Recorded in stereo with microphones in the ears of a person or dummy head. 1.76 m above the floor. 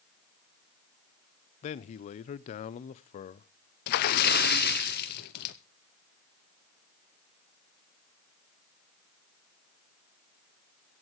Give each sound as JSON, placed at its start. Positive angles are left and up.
{"t": 1.6, "sound": "a man speaking", "side_deg": 40, "distance_m": 0.7}
{"t": 3.9, "sound": "a splash", "side_deg": 55, "distance_m": 0.8}